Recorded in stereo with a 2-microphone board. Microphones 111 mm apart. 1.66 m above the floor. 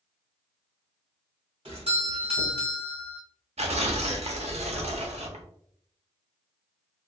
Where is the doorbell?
60° right (ahead or behind), 1.6 m.